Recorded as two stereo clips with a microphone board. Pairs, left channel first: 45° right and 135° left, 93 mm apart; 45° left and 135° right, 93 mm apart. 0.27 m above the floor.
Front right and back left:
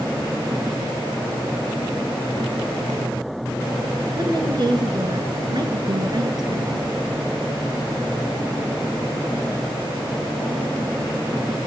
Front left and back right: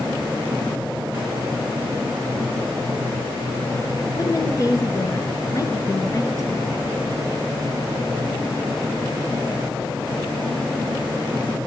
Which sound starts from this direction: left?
A woman speaking, at 4.2 s.